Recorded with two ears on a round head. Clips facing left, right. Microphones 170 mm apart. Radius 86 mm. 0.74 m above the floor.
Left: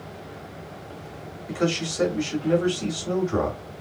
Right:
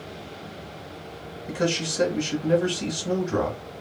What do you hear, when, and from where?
1.5 s a man speaking: 30° right (ahead or behind), 1.4 m